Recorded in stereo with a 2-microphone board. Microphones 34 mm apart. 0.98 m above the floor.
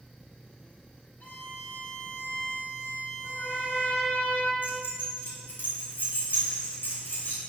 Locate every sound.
1.2 s a violin: 70° left (ahead or behind), 2 m
3.2 s a trumpet: 65° left (ahead or behind), 1.2 m
4.6 s keys jangling: 75° left (ahead or behind), 3 m